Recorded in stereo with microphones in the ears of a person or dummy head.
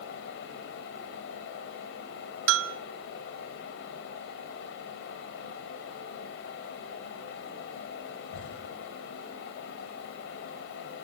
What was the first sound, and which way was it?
A fan, 45° left (ahead or behind).